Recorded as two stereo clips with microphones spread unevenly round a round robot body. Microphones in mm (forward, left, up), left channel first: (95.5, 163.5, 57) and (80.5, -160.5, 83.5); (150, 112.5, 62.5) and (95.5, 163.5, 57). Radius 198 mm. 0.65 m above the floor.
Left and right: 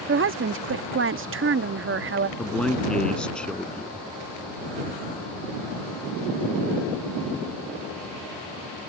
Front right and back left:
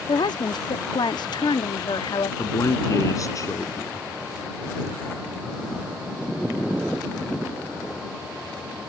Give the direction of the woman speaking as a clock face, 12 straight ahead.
1 o'clock.